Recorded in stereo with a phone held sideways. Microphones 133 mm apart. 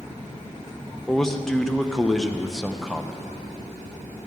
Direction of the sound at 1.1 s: 5° left (ahead or behind).